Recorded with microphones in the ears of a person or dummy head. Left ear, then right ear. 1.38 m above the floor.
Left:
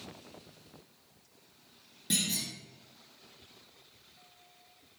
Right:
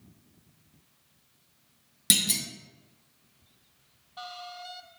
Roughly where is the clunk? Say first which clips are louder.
Right 6 dB; right.